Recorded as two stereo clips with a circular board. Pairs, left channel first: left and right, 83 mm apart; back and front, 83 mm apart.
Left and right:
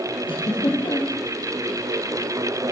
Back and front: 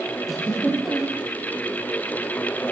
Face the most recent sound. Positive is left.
turn(degrees=90)